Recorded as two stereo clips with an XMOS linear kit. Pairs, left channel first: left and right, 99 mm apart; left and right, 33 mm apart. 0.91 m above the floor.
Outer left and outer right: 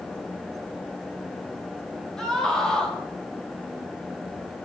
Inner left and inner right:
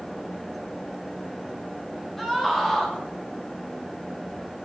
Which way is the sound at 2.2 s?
5° left (ahead or behind).